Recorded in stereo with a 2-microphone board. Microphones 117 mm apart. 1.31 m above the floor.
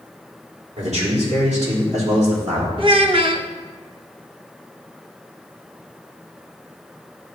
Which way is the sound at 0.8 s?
75° right (ahead or behind).